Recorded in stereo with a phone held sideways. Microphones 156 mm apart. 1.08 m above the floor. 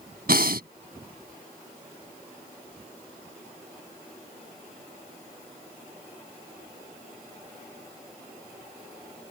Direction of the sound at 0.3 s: 75° right (ahead or behind).